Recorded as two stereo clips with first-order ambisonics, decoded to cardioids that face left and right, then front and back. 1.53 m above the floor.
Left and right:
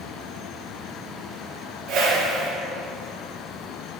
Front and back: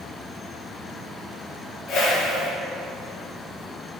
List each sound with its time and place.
1.9 s a whoosh: 50° right, 1.8 m